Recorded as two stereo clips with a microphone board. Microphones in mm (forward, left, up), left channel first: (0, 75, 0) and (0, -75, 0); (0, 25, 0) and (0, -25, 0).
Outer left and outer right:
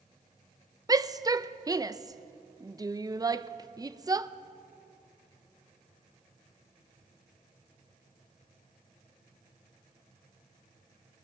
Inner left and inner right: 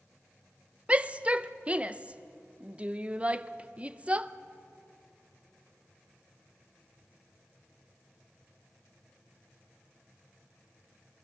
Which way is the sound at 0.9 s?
25° right (ahead or behind).